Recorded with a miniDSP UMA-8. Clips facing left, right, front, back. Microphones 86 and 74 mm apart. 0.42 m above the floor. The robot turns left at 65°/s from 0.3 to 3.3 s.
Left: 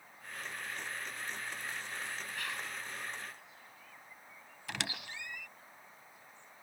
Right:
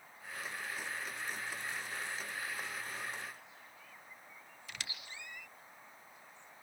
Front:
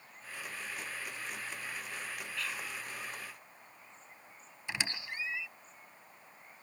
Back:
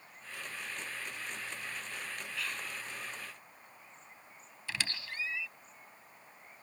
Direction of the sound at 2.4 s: 95° left.